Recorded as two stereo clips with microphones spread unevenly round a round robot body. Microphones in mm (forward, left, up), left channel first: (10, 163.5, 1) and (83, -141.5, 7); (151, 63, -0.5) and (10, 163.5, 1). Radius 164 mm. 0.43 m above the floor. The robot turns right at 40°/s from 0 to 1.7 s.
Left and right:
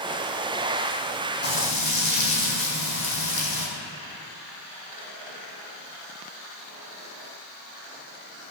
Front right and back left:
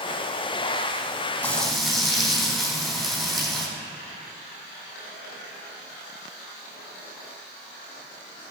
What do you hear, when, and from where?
1.4 s frying: 45° left, 4.5 m; by 3.7 s 55° left, 4.5 m